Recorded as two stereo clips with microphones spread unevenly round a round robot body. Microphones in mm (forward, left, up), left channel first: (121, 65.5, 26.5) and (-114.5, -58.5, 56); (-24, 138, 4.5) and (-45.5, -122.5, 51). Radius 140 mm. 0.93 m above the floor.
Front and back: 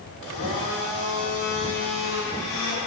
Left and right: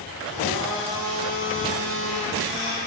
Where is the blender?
35° left, 4 m.